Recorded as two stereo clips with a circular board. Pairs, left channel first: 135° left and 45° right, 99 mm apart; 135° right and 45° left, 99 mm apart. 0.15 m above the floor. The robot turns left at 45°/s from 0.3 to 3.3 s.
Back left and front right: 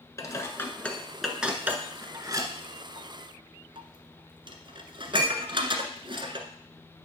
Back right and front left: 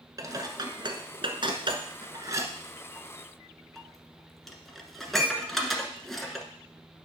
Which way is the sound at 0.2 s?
85° left.